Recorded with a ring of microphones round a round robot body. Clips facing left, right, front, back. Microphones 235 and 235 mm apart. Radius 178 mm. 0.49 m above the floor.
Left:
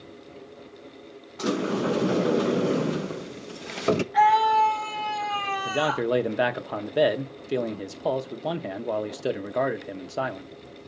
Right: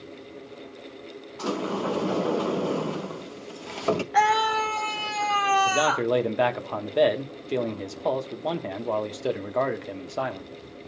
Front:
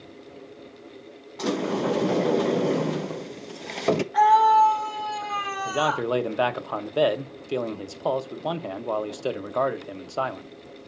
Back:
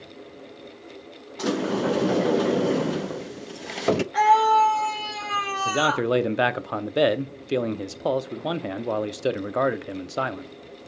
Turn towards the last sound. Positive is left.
turn(degrees=160)